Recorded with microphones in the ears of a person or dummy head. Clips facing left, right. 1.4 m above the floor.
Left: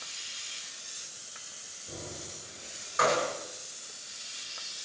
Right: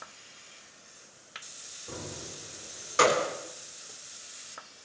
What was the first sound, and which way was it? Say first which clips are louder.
Keys jangling: right 2 dB; 80° right.